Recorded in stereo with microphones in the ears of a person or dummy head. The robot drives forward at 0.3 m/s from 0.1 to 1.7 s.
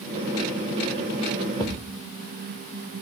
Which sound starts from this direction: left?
A thud, at 1.6 s.